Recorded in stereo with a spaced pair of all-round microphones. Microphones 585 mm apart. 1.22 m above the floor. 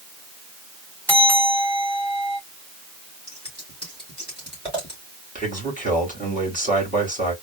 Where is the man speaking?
15° right (ahead or behind), 3 m.